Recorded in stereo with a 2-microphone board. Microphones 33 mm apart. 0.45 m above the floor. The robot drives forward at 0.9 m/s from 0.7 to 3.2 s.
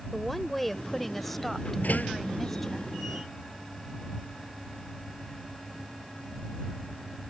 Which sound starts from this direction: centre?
A woman speaking, at 0.1 s.